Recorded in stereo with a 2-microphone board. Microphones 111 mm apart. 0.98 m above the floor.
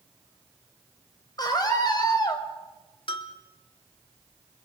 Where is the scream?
35° left (ahead or behind), 4.5 m.